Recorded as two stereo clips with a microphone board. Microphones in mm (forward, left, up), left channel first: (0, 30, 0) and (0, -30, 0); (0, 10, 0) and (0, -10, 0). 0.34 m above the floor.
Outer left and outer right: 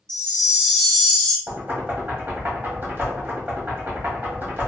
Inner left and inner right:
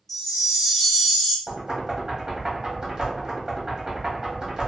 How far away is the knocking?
About 1.1 m.